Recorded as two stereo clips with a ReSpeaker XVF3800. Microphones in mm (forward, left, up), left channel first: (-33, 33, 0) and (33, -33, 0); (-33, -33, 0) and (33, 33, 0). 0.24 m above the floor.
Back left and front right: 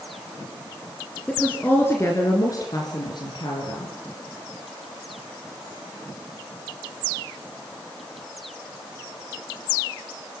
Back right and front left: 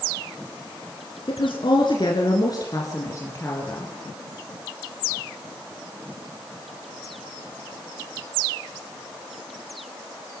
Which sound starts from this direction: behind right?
A woman speaking, at 1.3 s.